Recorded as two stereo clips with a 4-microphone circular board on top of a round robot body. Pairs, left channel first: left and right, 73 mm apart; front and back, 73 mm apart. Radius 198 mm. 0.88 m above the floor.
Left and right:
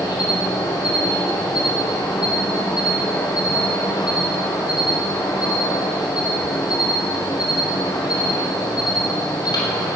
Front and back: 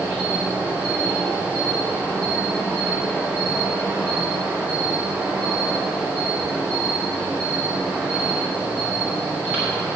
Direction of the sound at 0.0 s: 110° left.